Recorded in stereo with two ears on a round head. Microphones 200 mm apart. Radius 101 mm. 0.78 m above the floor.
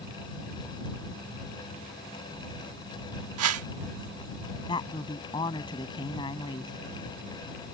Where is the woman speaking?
20° left (ahead or behind).